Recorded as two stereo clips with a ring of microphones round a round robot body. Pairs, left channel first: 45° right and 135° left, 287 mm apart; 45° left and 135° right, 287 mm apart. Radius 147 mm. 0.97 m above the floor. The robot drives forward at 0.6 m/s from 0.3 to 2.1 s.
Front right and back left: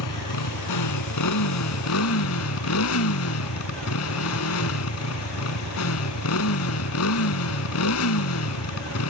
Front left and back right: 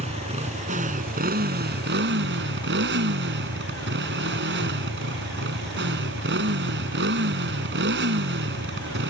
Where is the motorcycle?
65° right; by 9.1 s 85° right.